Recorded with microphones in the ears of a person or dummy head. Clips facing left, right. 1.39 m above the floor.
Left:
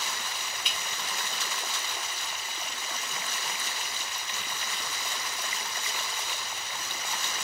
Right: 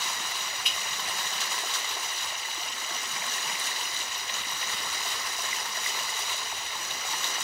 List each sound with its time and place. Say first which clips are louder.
0.7 s dripping: even; 20° left (ahead or behind), 0.8 m